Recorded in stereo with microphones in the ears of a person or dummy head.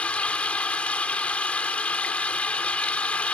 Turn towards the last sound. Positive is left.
turn(degrees=10)  # may be behind; listen again after turning